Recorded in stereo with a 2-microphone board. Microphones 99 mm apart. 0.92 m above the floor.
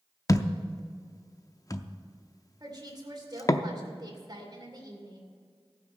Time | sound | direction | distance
0.3 | a thud | 35° left (ahead or behind) | 0.5 m
2.6 | a woman speaking | 40° right (ahead or behind) | 2.5 m